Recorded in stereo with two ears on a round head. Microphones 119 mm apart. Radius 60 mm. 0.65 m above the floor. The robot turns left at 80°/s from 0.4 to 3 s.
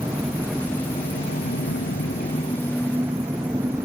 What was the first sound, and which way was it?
An engine running, 165° right.